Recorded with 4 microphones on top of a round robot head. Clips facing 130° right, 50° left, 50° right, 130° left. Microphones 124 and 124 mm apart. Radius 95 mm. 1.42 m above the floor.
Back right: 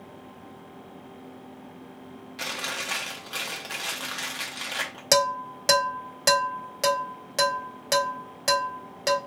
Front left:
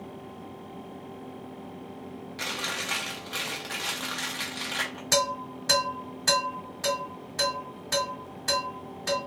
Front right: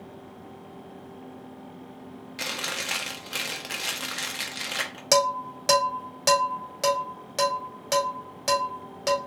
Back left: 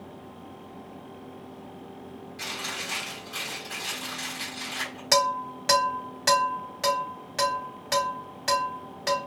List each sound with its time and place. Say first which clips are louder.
2.4 s chewing: back right 1 dB, front right 3 dB; 45° right, 0.7 m
5.1 s dishes clattering: back right 4 dB, front right 2 dB; 110° right, 1.2 m